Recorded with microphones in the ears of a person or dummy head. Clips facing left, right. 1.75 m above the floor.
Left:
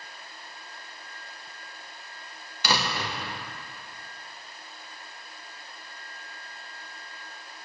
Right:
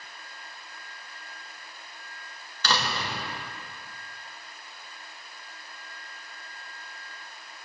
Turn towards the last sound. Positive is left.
turn(degrees=10)  # may be behind; listen again after turning